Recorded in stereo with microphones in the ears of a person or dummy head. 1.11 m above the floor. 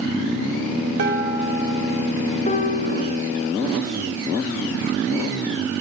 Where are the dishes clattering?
50° right (ahead or behind), 1.9 m.